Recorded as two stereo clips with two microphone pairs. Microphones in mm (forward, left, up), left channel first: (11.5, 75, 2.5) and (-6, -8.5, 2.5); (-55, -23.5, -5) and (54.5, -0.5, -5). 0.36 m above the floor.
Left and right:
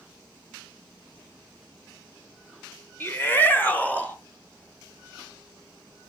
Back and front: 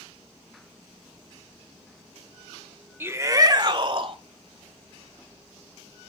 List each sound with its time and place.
3.0 s a shout: 55° left, 1.1 m; by 4.2 s 10° left, 1.6 m